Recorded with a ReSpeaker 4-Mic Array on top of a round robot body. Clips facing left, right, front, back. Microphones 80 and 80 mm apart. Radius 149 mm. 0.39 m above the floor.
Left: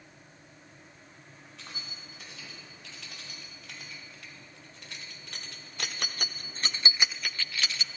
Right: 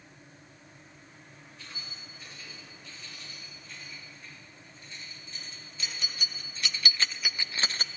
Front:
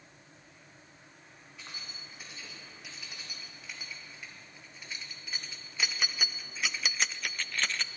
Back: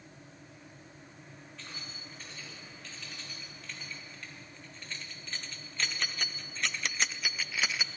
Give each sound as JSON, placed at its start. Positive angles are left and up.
{"t": 1.6, "sound": "keys jangling", "azimuth_deg": 80, "distance_m": 3.5}